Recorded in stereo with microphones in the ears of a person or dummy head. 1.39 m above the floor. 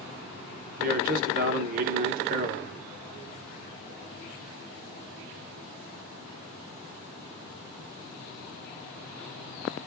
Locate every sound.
0.8 s a man speaking: 50° right (ahead or behind), 1.1 m